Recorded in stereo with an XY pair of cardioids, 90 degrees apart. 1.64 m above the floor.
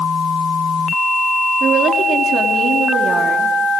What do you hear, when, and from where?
1.6 s a woman speaking: 65° right, 3.5 m